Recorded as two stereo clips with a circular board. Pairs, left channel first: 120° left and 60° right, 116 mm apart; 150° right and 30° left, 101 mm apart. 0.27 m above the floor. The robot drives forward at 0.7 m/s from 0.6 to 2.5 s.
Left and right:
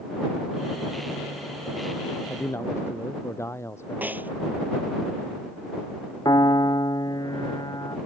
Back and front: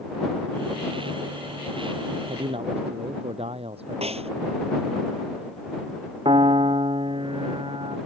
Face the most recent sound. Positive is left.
turn(degrees=65)